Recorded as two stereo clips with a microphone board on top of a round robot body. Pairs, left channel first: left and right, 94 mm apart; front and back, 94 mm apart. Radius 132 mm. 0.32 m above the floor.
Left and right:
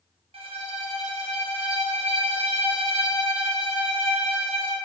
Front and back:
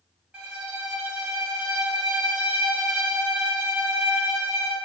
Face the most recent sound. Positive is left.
turn(degrees=-100)